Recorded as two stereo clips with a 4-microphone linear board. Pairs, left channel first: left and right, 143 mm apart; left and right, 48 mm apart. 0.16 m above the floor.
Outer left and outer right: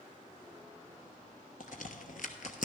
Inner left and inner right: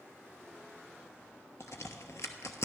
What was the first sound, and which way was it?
A crack, 70° left (ahead or behind).